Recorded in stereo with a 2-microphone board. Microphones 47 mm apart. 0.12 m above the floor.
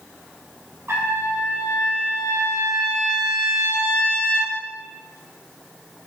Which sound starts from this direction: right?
A trumpet, at 0.9 s.